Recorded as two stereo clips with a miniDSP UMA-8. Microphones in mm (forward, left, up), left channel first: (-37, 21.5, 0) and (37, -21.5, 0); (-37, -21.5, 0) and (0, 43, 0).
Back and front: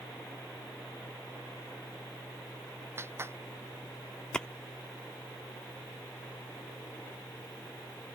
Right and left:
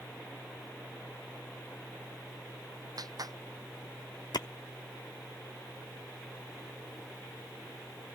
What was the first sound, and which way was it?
A clap, 30° left.